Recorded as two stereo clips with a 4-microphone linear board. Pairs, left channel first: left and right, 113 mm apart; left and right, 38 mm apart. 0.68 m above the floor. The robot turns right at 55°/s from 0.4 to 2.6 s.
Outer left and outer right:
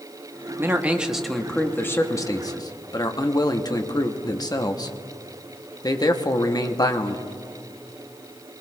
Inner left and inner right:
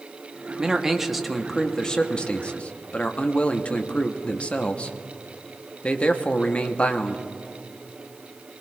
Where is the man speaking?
40° right, 0.9 m; by 7.3 s 75° left, 0.9 m.